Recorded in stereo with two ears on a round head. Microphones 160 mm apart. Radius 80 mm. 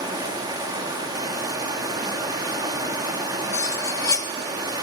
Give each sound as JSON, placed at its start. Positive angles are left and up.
{"t": 0.0, "sound": "running water", "side_deg": -25, "distance_m": 1.9}
{"t": 3.5, "sound": "cutlery clinking", "side_deg": 20, "distance_m": 1.3}